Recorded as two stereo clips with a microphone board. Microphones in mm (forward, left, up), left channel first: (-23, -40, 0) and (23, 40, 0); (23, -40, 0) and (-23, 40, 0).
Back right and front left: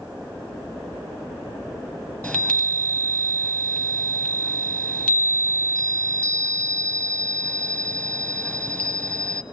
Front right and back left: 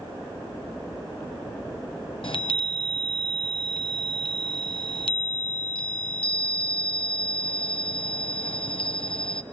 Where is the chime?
45° right, 0.9 m.